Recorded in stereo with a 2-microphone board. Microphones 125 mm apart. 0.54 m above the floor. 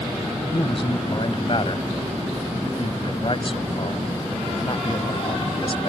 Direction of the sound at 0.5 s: 50° left (ahead or behind).